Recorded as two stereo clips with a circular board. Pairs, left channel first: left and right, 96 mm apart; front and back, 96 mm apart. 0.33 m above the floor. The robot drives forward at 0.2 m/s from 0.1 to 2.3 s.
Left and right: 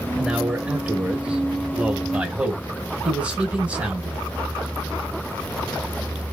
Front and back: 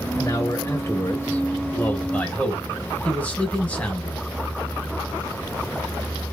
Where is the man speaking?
20° right, 1.2 m; by 4.3 s 40° right, 1.0 m.